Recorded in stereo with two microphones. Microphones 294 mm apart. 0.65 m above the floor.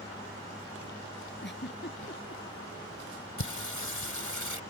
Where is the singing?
80° left.